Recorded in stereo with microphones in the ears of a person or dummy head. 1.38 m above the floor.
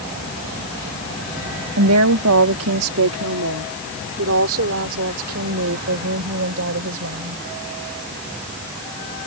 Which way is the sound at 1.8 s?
80° right.